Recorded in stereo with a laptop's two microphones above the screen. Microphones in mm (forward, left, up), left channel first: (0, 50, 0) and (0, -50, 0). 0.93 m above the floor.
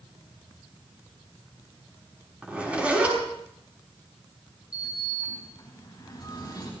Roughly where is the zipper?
Centre.